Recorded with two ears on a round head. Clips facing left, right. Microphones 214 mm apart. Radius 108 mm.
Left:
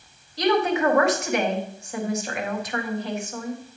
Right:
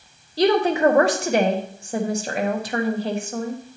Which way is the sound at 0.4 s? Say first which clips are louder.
Right 4 dB; 25° right (ahead or behind).